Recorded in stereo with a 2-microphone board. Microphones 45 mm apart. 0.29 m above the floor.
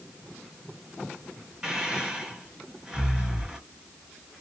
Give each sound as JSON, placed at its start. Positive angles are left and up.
{"t": 1.6, "sound": "breathing", "side_deg": -15, "distance_m": 1.4}